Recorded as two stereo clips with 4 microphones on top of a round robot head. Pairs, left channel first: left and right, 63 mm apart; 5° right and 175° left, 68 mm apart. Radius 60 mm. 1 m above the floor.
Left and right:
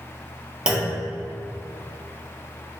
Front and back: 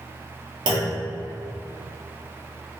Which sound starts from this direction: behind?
A clunk, at 0.7 s.